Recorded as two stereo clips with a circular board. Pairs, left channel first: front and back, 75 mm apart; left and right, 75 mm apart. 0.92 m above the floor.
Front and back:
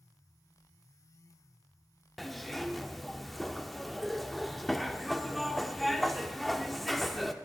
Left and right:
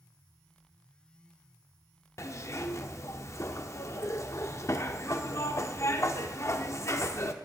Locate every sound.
2.2 s a zipper: 90° left, 0.5 m